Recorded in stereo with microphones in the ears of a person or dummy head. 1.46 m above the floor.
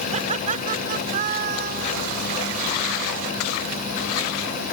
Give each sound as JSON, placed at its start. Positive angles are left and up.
{"t": 0.1, "sound": "laughter", "side_deg": -40}